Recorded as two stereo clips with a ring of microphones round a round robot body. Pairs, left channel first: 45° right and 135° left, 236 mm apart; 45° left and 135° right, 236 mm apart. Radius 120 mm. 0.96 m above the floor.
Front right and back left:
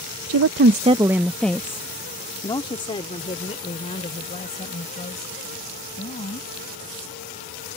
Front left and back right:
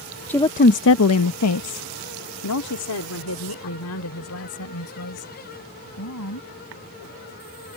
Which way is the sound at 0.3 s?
125° left.